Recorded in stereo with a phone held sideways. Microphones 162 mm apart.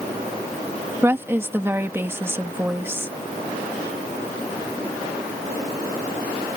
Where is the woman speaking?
15° right (ahead or behind).